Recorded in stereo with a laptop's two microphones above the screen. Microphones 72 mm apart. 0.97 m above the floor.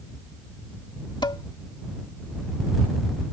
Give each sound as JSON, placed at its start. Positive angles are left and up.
{"t": 1.2, "sound": "dishes clattering", "side_deg": 80}